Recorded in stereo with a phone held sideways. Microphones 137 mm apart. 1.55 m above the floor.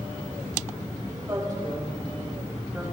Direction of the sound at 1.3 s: 30° right (ahead or behind).